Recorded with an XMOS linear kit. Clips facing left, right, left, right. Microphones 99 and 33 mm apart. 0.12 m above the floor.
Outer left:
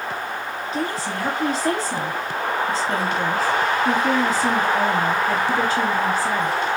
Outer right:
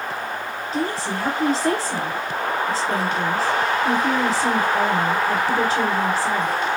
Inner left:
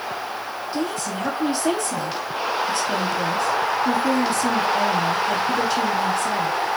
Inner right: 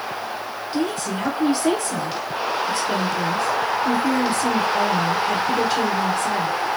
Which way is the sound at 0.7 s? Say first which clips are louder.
Outer right 2 dB, inner right 3 dB; 40° right (ahead or behind).